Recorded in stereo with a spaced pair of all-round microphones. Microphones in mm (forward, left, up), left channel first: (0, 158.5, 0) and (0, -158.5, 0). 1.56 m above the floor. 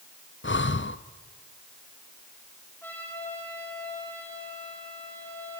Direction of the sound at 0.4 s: 40° left (ahead or behind).